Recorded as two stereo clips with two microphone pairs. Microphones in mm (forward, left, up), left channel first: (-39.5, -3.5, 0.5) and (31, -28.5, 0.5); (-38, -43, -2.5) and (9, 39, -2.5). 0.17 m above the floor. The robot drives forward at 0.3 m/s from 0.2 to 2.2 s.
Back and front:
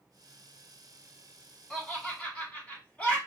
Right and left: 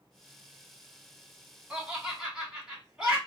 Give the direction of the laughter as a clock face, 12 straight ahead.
8 o'clock.